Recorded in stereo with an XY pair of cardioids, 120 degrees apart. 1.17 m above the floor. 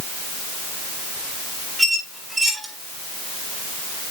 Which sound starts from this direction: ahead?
A squeak, at 1.8 s.